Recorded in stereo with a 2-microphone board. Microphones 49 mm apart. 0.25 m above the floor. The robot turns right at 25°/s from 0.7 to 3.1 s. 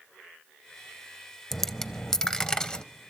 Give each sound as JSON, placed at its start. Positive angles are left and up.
{"t": 1.5, "sound": "a dropped coin", "side_deg": 5, "distance_m": 0.5}